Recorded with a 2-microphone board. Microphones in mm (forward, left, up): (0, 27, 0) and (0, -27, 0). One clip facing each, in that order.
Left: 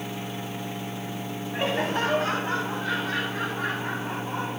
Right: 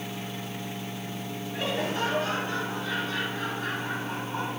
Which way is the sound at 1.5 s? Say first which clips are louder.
Left 3 dB; 30° left (ahead or behind).